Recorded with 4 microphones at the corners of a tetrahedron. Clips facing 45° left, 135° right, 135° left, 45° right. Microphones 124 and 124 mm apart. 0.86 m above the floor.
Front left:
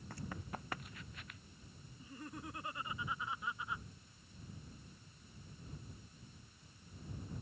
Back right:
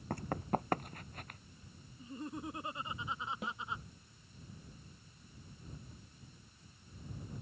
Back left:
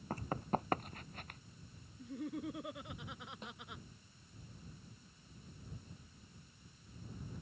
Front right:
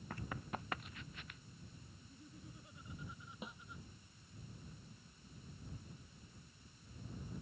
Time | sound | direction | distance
0.1 | running footsteps | 170° right | ?
2.0 | laughter | 155° left | ?
3.4 | a snare drum | 130° right | ?